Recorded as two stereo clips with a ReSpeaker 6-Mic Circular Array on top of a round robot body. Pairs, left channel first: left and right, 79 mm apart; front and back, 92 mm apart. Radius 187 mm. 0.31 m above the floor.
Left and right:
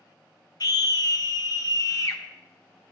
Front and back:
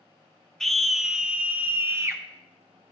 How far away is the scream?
About 1.4 m.